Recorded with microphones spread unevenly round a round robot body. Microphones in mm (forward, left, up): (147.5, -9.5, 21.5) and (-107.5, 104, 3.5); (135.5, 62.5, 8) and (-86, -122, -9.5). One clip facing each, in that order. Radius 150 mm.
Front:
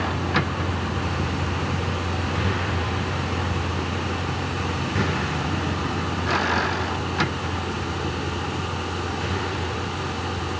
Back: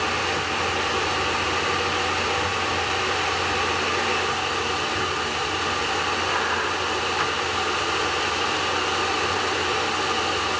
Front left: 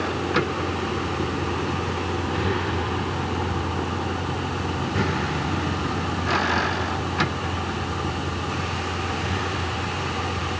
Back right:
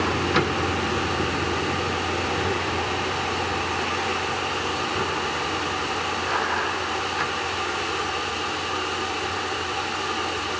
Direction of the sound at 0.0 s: 55° right.